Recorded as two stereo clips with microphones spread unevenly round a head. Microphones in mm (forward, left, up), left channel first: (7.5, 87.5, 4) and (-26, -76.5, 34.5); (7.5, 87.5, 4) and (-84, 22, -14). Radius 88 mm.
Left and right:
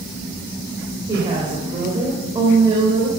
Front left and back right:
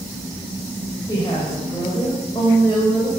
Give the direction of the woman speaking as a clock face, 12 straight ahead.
1 o'clock.